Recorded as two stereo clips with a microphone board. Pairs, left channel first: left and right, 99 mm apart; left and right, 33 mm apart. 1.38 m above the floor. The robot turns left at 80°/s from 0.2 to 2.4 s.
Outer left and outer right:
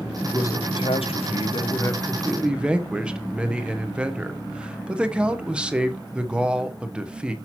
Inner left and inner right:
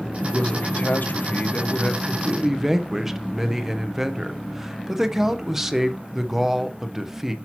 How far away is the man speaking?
About 0.7 m.